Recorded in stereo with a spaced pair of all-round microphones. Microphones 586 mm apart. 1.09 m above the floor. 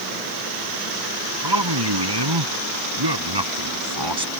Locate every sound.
1.4 s a man speaking: 40° right (ahead or behind)